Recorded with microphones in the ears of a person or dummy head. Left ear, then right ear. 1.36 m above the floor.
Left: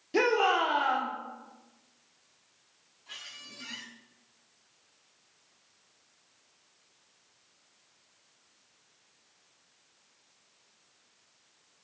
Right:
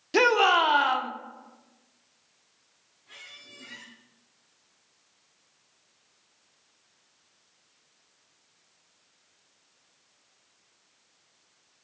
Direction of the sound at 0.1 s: 40° right (ahead or behind).